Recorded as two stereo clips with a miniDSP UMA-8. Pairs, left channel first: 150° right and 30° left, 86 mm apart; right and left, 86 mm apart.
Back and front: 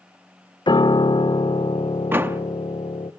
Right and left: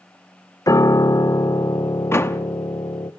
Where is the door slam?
35° right, 1.0 m.